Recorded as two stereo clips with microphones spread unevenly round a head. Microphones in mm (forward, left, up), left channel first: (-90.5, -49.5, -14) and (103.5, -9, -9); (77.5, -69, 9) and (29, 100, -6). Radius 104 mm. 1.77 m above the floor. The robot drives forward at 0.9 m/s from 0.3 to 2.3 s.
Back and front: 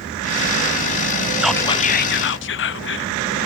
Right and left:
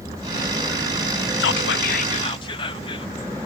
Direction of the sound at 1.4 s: 70° right.